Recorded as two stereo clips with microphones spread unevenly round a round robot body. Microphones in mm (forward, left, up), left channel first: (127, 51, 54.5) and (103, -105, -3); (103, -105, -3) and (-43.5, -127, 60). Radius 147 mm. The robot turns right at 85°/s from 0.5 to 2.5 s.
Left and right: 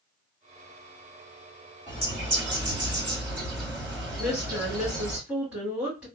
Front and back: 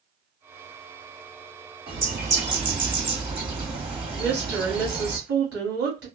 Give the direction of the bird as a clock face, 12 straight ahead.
6 o'clock.